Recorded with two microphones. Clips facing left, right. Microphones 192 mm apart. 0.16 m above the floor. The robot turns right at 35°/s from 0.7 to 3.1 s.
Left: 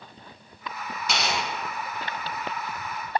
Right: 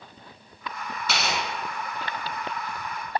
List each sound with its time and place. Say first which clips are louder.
1.1 s tearing paper: left 1 dB; 15° left (ahead or behind), 1.3 m; by 1.4 s 10° left (ahead or behind), 1.3 m